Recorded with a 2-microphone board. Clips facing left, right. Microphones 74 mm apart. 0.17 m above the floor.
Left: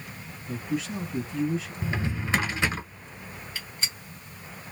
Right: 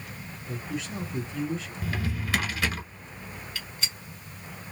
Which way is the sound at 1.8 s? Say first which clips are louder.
Left 2 dB; 20° left (ahead or behind).